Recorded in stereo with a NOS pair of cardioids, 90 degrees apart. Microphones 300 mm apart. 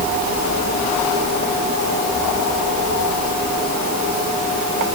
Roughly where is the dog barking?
No dog barking in this recording.